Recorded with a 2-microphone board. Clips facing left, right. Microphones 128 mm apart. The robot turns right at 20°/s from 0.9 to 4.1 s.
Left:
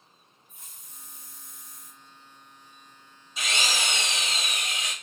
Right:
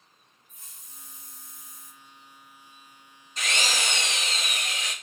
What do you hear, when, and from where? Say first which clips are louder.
0.5 s a hiss: left 1 dB; 60° left (ahead or behind), 1.2 m; by 1.9 s 70° left (ahead or behind), 1.2 m
3.4 s a drill: even; 10° left (ahead or behind), 1.7 m; by 4.9 s 25° left (ahead or behind), 1.7 m